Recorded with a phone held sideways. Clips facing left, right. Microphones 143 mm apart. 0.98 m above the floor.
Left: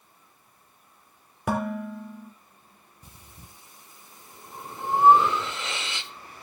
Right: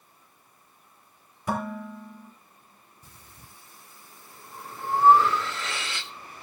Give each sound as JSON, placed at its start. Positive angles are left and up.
{"t": 1.5, "sound": "dishes clattering", "side_deg": 75, "distance_m": 2.0}
{"t": 3.0, "sound": "breathing", "side_deg": 20, "distance_m": 0.8}